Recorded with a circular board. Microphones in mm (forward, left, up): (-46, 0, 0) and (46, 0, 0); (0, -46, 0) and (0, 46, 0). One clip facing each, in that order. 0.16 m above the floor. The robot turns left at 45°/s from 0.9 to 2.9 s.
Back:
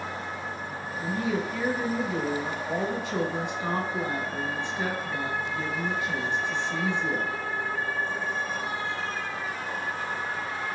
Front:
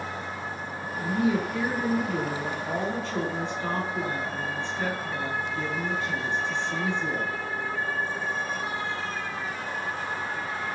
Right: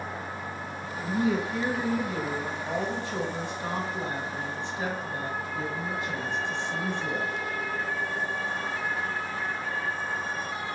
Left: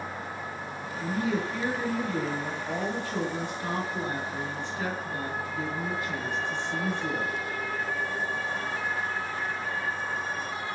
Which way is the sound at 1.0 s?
40° right.